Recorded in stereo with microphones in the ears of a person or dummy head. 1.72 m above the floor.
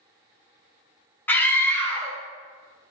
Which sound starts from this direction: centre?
A scream, at 1.3 s.